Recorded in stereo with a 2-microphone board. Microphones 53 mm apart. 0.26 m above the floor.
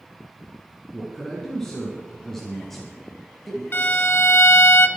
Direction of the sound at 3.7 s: 40° left (ahead or behind).